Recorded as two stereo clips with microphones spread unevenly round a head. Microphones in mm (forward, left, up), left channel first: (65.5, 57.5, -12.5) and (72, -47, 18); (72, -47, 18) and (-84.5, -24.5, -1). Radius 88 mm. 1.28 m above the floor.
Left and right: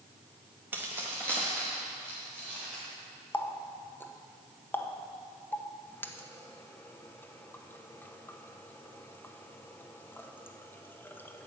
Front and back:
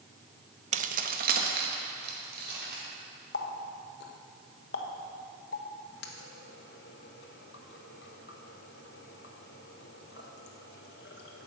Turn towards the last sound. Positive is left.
turn(degrees=15)